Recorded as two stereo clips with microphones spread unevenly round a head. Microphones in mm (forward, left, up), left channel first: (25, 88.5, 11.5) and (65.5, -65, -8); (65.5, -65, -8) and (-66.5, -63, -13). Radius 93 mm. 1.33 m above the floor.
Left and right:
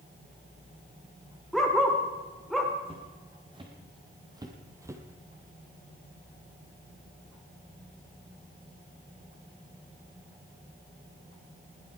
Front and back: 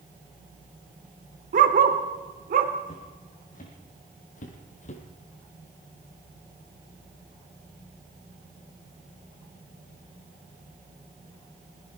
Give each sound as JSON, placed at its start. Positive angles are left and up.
{"t": 1.5, "sound": "a dog barking", "azimuth_deg": -170, "distance_m": 1.8}
{"t": 2.9, "sound": "footsteps", "azimuth_deg": -15, "distance_m": 4.0}